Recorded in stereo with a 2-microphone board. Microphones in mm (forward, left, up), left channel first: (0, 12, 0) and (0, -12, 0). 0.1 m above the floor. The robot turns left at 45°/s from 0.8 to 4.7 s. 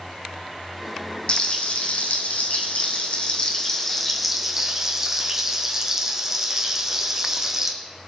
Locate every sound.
1.3 s frying: 130° left, 1.7 m; by 7.7 s 25° right, 1.7 m